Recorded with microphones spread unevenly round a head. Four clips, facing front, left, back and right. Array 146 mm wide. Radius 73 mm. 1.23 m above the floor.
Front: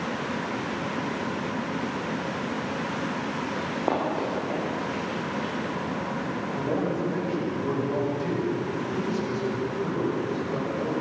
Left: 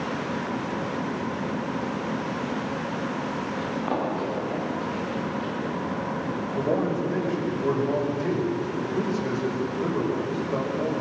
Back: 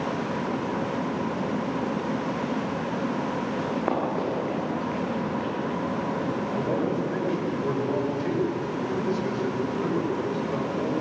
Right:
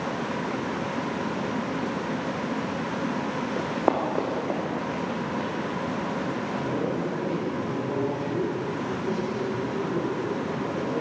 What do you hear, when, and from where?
3.6 s running footsteps: 95° right, 5 m; by 5.5 s 100° right, 6 m
6.5 s a man speaking: 95° left, 6.5 m